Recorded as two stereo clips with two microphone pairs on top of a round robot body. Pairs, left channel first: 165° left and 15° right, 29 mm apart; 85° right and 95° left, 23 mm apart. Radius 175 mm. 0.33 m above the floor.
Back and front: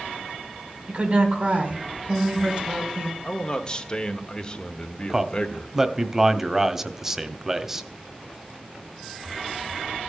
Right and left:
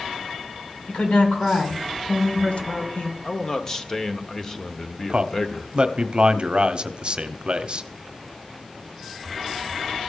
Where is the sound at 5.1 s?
55° left, 1.1 m.